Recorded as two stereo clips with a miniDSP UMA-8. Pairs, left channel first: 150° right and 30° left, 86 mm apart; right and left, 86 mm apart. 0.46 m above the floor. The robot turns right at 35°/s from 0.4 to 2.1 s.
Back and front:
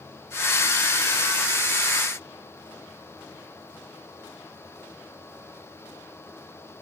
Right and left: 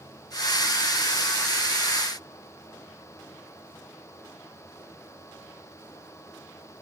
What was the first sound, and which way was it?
Only background noise.